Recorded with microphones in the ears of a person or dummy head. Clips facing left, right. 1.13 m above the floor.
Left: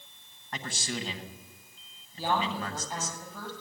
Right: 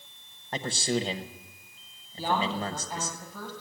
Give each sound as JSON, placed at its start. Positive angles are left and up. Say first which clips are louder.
{"t": 0.5, "sound": "a man speaking", "louder": "right 8 dB", "side_deg": -30, "distance_m": 0.8}
{"t": 2.2, "sound": "a woman speaking", "louder": "right 1 dB", "side_deg": 0, "distance_m": 6.0}